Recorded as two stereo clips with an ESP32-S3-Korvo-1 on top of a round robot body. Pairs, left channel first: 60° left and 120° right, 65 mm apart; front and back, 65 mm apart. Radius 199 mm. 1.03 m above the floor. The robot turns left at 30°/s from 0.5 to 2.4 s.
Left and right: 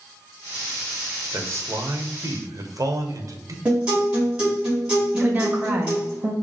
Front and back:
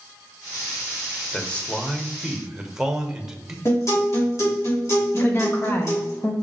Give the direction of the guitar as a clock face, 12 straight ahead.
1 o'clock.